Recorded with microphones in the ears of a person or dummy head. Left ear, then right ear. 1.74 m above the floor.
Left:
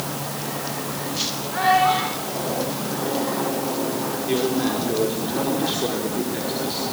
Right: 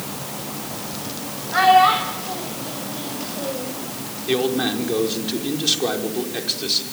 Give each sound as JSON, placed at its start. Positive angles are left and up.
{"t": 1.5, "sound": "a child speaking", "side_deg": -65, "distance_m": 5.0}
{"t": 4.3, "sound": "a man speaking", "side_deg": -45, "distance_m": 5.5}